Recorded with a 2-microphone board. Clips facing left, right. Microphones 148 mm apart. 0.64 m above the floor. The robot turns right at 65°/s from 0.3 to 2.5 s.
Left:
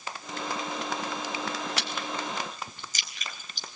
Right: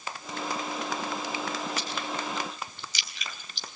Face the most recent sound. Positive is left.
turn(degrees=45)  # may be behind; listen again after turning